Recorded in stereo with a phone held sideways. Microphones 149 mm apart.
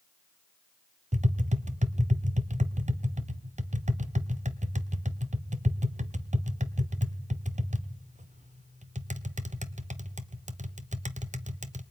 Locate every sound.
1.1 s tapping: 55° right (ahead or behind), 1.0 m